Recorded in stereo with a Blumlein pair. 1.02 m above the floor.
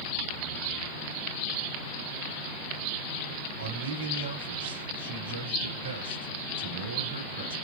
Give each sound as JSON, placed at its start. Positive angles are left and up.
{"t": 3.6, "sound": "a man speaking", "azimuth_deg": -70, "distance_m": 3.0}